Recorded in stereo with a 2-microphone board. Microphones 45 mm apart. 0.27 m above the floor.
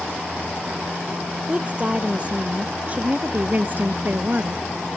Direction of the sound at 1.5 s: 25° right (ahead or behind).